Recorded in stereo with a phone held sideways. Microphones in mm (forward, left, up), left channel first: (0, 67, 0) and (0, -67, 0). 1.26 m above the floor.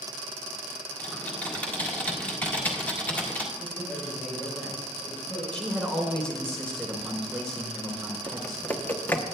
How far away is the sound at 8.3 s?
About 0.8 m.